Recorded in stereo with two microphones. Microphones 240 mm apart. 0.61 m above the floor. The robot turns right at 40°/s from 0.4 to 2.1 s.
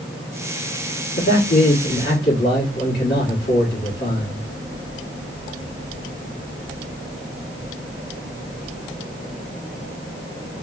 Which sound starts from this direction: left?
A man speaking, at 1.2 s.